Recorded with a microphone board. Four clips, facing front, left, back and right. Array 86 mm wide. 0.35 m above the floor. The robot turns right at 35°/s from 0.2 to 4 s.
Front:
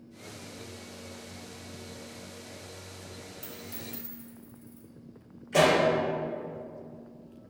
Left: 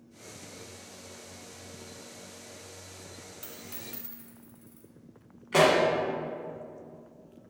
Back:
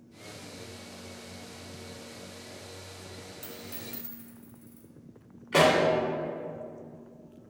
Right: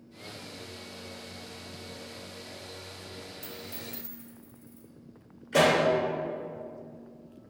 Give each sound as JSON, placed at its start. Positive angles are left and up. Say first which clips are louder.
{"t": 3.4, "sound": "a dropped coin", "louder": "right 3 dB, even", "azimuth_deg": 95, "distance_m": 1.3}
{"t": 5.5, "sound": "a pop", "louder": "left 1 dB, even", "azimuth_deg": 135, "distance_m": 1.8}